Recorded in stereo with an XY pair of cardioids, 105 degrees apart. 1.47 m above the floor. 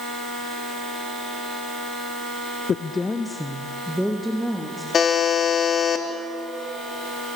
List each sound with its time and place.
2.7 s a woman speaking: 45° left, 0.7 m; by 4.8 s 5° right, 3.5 m
4.9 s a buzzer: 50° left, 3.5 m